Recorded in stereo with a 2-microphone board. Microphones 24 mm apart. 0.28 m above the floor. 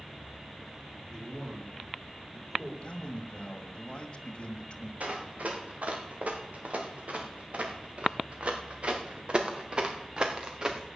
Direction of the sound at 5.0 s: 65° right (ahead or behind).